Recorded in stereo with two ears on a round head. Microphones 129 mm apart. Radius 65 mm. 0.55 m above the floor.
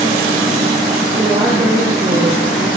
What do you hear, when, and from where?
1.2 s a woman speaking: 25° right (ahead or behind), 9.5 m; by 2.7 s 35° right (ahead or behind), 9.5 m